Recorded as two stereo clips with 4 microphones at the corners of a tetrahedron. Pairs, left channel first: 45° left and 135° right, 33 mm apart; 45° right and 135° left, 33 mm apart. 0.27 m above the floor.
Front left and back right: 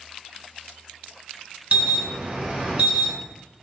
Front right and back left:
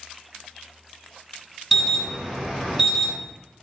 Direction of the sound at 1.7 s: 140° right.